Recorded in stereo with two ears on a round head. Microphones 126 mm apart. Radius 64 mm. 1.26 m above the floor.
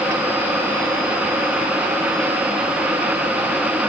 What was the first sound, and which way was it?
Only background noise.